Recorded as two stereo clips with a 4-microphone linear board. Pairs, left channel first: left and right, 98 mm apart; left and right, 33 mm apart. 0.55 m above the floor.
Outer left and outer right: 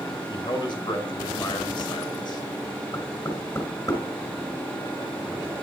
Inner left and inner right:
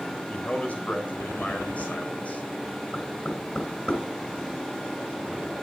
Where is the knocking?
30° left (ahead or behind), 5.5 m.